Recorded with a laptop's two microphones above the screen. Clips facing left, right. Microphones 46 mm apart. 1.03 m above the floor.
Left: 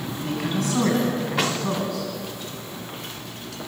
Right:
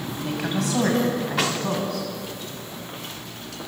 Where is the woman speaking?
70° right (ahead or behind), 7.5 m; by 2.1 s 75° right (ahead or behind), 10 m.